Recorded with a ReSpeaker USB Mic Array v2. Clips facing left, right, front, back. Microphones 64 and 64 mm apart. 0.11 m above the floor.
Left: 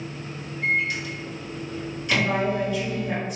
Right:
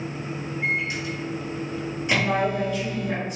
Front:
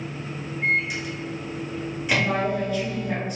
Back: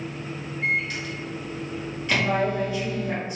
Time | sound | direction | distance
0.6 | a microwave | 65° right | 1.1 m
2.1 | a woman speaking | 170° left | 1.7 m